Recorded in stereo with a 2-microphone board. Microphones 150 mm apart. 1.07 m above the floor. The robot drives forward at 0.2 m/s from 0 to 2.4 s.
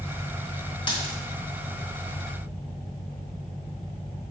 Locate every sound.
0.9 s a dropped coin: 35° left (ahead or behind), 1.2 m